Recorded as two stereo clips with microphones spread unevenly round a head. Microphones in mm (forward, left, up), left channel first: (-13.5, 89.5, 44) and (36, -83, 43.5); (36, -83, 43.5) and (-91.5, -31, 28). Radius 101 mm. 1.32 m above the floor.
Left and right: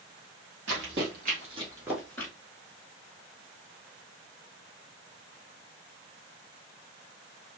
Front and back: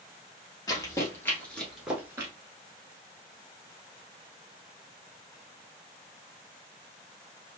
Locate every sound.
0.7 s running footsteps: 75° right, 2.0 m; by 2.3 s 120° left, 1.3 m